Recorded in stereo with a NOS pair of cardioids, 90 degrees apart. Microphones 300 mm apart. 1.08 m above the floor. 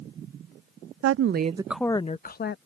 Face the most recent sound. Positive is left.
turn(degrees=40)